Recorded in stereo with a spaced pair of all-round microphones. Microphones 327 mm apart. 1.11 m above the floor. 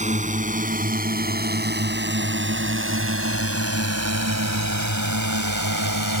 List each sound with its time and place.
0.0 s a drone: 20° right (ahead or behind); by 6.2 s 75° right (ahead or behind)